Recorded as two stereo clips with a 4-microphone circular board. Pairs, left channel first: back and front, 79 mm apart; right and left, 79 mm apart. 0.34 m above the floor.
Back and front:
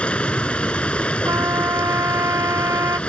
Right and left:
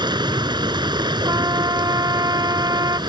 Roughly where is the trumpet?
Ahead left.